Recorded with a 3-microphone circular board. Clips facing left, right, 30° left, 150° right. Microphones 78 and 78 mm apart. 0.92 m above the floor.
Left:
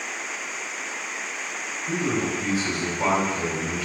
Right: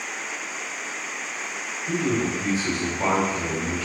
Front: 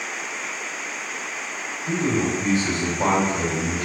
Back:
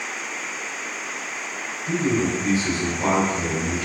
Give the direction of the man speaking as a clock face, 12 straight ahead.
12 o'clock.